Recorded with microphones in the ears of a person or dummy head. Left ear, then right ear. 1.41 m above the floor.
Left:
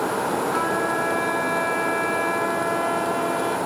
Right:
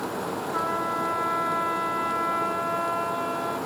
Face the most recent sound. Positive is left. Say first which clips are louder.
# left 4 dB
turn(degrees=65)  # may be behind; listen again after turning